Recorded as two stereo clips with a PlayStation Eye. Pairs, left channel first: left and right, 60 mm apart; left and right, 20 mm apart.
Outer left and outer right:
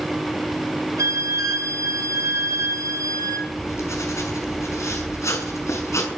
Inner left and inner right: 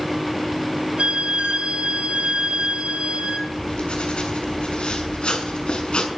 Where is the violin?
70° right (ahead or behind), 3.5 m.